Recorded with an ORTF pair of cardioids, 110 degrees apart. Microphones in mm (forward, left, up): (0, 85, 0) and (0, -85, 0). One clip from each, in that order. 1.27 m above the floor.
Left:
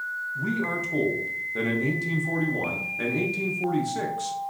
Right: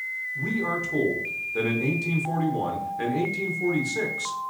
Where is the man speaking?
Straight ahead, 0.6 m.